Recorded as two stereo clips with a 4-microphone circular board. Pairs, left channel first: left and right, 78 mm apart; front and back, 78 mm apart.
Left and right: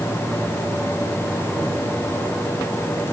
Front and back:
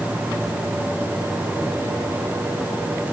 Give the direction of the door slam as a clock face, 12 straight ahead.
No door slam in this recording.